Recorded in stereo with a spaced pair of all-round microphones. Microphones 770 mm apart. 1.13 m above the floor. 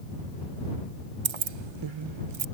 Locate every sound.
1.2 s keys jangling: 45° right (ahead or behind)